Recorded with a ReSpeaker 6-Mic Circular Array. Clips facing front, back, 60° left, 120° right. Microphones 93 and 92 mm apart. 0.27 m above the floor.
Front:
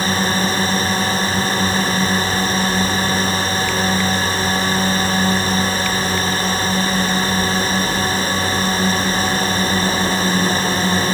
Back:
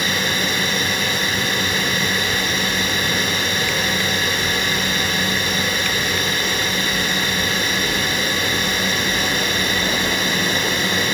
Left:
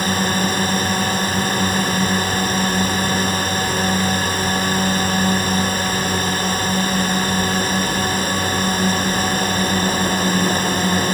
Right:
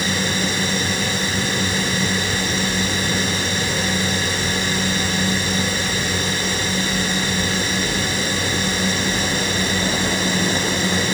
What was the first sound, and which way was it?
A drone, 40° left.